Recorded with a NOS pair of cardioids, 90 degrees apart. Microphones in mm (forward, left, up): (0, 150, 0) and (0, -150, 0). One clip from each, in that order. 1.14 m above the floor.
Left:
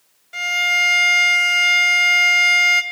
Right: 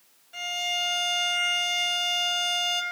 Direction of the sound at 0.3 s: 70° left.